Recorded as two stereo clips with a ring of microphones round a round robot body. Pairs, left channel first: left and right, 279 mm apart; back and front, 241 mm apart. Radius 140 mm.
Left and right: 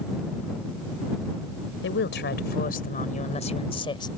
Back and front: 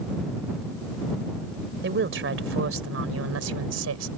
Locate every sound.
1.8 s a woman speaking: 40° left; by 4.1 s 15° left